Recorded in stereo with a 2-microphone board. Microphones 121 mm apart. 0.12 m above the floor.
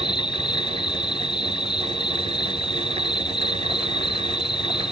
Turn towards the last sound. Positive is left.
turn(degrees=40)  # may be behind; listen again after turning